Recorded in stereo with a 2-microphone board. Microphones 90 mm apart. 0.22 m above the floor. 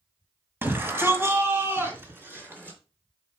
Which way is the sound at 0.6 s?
25° right (ahead or behind).